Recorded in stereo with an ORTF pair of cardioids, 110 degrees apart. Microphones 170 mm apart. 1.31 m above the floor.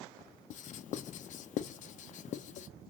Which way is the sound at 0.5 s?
55° left.